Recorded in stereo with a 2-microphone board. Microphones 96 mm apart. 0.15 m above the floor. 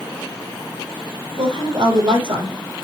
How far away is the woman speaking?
About 4.5 m.